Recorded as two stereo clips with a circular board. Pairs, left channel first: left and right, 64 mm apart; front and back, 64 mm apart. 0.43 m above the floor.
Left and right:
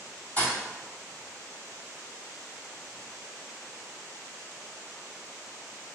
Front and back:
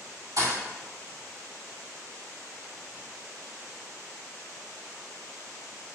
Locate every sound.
0.4 s a thud: 160° left, 1.9 m